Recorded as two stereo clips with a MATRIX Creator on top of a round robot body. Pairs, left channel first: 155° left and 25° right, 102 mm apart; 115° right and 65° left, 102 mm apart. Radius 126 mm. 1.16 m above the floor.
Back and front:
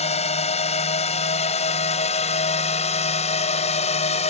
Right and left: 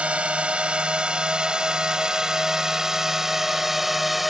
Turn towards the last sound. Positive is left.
turn(degrees=155)